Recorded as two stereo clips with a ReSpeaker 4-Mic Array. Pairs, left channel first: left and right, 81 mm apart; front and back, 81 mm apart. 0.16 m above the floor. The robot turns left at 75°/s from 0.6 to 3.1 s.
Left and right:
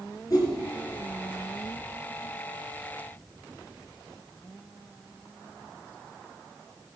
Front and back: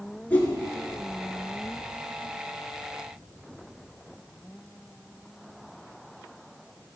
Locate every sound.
0.3 s a whoosh: 70° left, 2.5 m